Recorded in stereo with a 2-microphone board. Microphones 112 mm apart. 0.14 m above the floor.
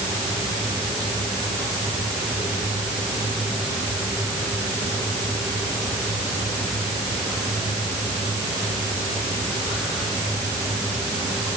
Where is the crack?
I don't hear a crack.